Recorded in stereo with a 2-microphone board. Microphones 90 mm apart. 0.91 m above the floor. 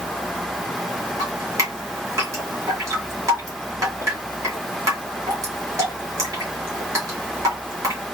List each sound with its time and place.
1.2 s dripping: 35° right (ahead or behind), 1.8 m